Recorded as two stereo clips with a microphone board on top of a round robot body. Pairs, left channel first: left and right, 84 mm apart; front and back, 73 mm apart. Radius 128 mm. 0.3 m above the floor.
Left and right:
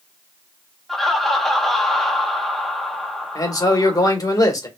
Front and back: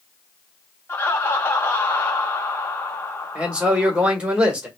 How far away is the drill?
No drill in this recording.